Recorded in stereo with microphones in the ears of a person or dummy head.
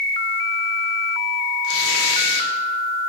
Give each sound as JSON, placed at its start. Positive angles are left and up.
{"t": 1.6, "sound": "tearing paper", "side_deg": 70, "distance_m": 0.8}